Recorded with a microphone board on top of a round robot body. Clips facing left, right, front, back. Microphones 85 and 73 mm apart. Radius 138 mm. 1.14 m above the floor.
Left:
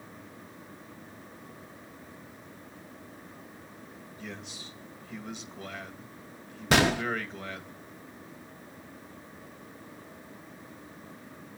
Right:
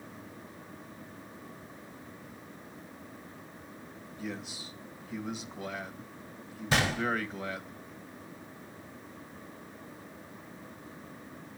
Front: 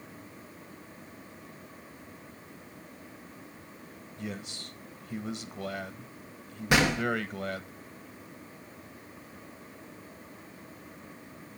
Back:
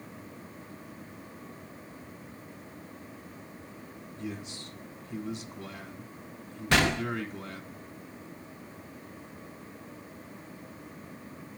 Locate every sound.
4.2 s a man speaking: 5° right, 1.6 m
6.7 s a gunshot: 75° left, 0.7 m